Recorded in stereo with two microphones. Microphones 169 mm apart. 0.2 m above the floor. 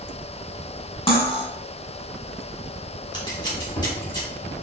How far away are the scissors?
About 1.5 m.